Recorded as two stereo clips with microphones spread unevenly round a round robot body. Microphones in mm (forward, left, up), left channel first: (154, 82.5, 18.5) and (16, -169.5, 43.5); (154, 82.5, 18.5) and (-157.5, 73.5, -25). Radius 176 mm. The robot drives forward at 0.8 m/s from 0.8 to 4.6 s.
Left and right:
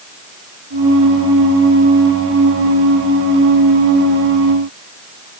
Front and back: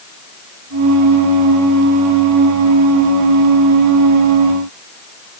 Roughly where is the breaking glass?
No breaking glass in this recording.